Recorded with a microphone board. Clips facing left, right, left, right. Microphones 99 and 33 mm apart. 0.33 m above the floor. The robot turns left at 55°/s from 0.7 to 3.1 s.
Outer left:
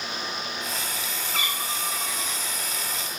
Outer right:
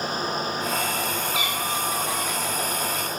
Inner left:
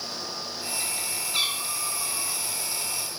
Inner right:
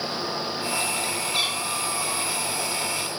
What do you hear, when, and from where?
1.3 s a cat meowing: 5° right, 6 m; by 2.4 s 65° right, 6 m